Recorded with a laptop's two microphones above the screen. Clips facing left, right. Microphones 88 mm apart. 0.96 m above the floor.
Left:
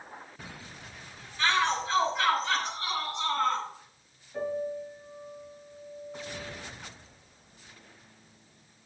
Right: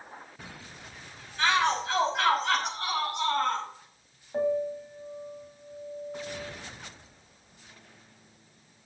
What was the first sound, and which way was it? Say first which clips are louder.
A shout: right 2 dB; 80° right.